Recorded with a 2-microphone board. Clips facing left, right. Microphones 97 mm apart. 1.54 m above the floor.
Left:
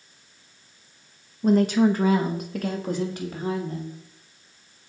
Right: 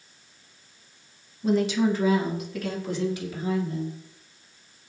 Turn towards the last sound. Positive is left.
turn(degrees=50)  # may be behind; listen again after turning